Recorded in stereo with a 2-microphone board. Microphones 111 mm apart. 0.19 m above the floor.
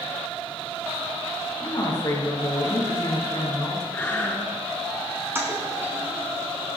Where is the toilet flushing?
20° right (ahead or behind), 2 m.